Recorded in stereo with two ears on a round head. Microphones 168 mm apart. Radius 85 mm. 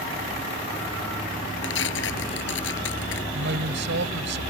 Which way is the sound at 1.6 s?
65° left (ahead or behind).